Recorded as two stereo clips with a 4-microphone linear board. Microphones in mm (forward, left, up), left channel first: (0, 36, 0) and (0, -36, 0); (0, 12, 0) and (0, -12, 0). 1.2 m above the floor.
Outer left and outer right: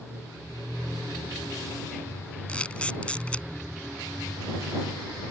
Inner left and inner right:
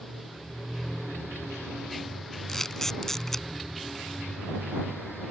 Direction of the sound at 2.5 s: 15° left (ahead or behind).